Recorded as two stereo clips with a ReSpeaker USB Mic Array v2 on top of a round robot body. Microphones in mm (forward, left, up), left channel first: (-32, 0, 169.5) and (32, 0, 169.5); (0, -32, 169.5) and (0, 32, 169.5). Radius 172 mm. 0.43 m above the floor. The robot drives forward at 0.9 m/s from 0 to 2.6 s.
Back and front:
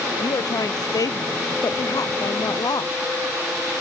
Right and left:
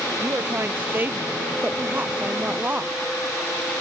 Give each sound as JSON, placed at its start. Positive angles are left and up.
{"t": 0.2, "sound": "a woman speaking", "azimuth_deg": 150}